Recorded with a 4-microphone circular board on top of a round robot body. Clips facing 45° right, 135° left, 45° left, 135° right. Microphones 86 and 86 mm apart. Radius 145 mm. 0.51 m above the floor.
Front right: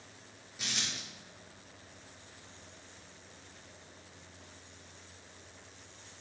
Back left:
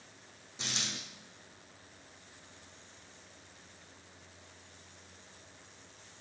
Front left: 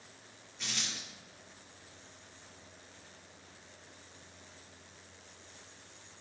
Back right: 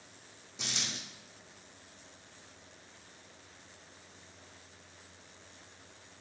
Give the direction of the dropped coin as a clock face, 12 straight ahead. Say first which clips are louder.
Even, back right 1 dB; 5 o'clock.